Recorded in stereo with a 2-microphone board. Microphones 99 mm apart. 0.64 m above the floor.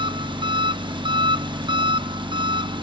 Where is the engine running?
50° right (ahead or behind), 0.8 m.